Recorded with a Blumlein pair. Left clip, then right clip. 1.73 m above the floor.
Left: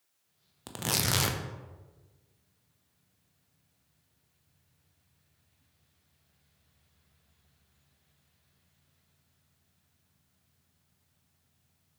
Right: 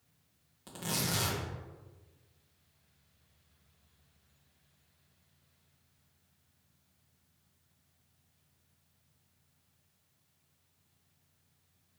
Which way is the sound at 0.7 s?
60° left.